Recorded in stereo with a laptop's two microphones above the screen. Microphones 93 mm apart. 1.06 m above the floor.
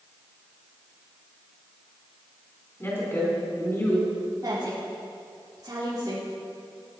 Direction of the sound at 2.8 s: 25° left (ahead or behind).